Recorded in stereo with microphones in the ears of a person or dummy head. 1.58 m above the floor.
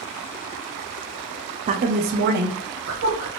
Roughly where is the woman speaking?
Right.